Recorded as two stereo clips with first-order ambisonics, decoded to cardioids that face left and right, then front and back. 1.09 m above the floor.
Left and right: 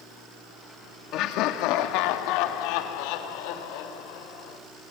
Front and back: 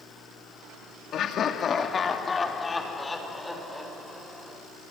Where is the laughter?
50° left, 2.5 m; by 4.6 s 90° left, 6 m.